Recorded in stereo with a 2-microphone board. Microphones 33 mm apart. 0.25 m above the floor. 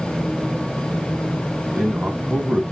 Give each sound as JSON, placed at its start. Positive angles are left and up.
{"t": 1.7, "sound": "a man speaking", "side_deg": -45, "distance_m": 2.0}